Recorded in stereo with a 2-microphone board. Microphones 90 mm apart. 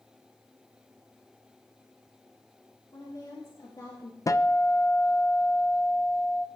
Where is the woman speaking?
40° left (ahead or behind), 3 m; by 4.2 s 55° left (ahead or behind), 1.9 m.